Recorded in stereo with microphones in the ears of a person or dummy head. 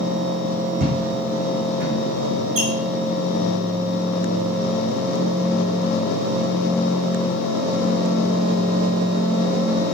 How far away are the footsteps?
About 3 m.